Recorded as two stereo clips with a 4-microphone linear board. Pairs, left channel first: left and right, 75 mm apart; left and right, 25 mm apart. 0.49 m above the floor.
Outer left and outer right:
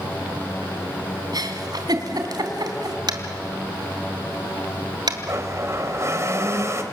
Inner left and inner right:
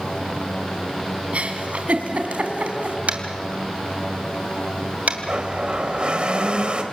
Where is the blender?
40° right (ahead or behind), 2.5 m.